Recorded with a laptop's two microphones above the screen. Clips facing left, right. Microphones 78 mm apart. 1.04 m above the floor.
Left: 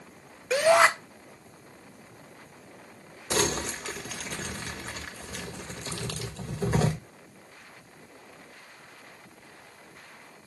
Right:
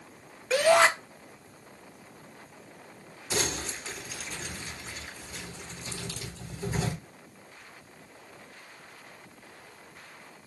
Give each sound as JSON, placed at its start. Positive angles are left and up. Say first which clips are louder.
{"t": 0.5, "sound": "a shout", "louder": "left 1 dB", "side_deg": 10, "distance_m": 0.7}
{"t": 3.3, "sound": "crumpling", "louder": "left 5 dB", "side_deg": 70, "distance_m": 1.7}